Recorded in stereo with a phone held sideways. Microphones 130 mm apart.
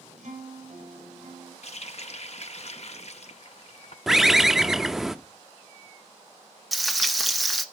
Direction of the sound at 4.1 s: 5° right (ahead or behind).